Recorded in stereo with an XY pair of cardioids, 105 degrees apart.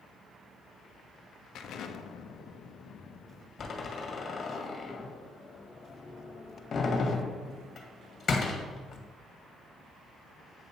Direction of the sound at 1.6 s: 70° left.